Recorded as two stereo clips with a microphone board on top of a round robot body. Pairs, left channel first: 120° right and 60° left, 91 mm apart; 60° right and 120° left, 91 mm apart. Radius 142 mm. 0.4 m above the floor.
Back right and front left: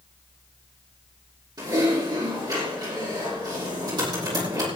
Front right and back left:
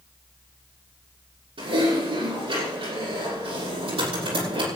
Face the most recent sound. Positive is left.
turn(degrees=105)